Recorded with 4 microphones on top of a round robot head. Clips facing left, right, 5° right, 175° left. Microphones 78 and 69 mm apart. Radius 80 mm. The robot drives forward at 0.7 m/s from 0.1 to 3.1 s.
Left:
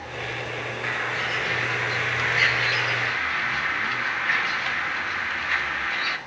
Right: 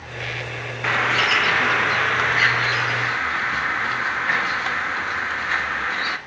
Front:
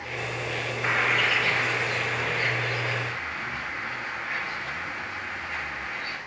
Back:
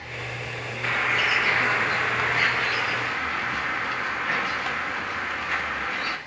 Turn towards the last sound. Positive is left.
turn(degrees=-150)